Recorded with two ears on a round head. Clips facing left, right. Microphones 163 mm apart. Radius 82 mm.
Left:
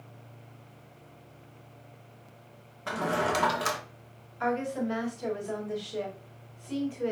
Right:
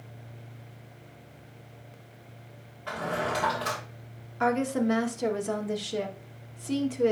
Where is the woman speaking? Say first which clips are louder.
Right 4 dB; 65° right (ahead or behind), 1.3 m.